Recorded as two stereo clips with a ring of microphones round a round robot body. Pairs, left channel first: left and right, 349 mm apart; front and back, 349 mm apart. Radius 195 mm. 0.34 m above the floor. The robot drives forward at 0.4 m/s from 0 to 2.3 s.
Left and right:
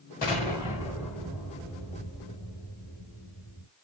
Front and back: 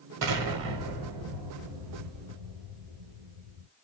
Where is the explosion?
155° left, 0.9 m; by 3.7 s 165° left, 1.7 m.